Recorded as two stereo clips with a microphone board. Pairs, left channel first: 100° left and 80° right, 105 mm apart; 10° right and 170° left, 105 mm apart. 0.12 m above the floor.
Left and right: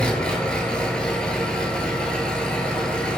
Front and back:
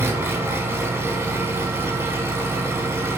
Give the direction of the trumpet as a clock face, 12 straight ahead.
No trumpet in this recording.